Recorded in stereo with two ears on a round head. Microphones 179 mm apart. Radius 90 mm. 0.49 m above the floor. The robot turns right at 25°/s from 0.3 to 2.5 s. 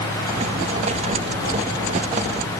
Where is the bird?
I don't hear a bird.